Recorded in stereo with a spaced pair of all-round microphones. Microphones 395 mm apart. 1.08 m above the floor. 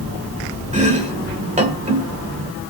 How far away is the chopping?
About 1.9 m.